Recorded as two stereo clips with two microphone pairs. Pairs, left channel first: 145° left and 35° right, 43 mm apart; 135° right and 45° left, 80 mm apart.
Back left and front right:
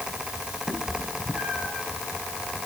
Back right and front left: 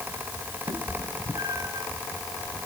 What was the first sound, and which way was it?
A cat meowing, 30° left.